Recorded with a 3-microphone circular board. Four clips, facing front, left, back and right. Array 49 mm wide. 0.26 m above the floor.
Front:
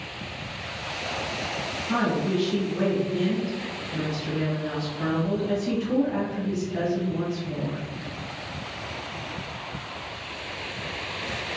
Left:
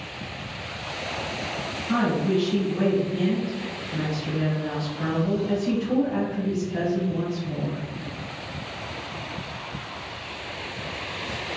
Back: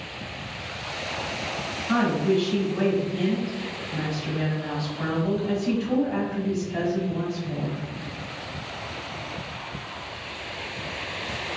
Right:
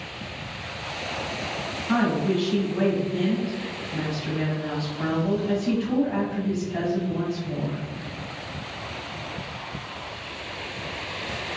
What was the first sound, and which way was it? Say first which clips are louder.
A woman speaking: even, back 3 dB; 145° right.